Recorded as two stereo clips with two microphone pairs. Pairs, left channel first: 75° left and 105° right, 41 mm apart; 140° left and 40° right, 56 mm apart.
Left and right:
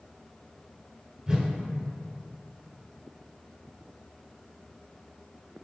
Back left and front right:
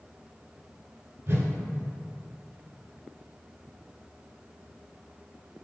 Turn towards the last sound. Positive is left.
turn(degrees=-50)